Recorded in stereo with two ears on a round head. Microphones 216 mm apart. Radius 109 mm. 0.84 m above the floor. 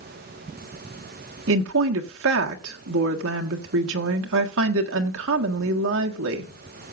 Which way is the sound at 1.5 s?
60° right (ahead or behind).